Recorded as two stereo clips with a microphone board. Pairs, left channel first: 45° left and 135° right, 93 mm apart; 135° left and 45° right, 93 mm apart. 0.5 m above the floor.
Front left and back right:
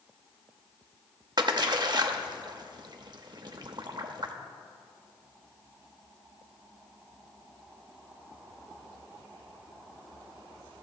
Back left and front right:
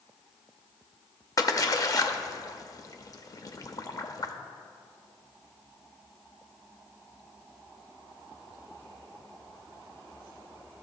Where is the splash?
175° right, 0.5 m.